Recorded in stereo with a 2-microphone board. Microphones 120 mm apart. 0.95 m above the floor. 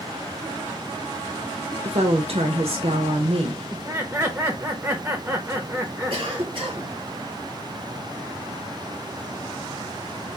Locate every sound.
1.9 s a woman speaking: 55° right (ahead or behind), 0.7 m
3.7 s laughter: 15° right (ahead or behind), 0.6 m
6.1 s a cough: 45° right (ahead or behind), 1.4 m